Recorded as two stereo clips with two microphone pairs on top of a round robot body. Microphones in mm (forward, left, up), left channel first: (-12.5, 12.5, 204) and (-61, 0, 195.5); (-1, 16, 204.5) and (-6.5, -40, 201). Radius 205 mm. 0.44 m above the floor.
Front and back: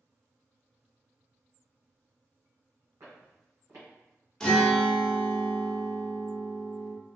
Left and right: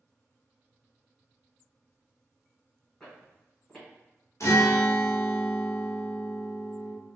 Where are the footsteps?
170° left, 1.9 m.